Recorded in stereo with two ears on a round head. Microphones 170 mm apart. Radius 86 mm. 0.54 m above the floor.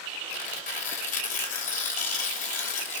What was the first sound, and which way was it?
Tearing paper, 40° left (ahead or behind).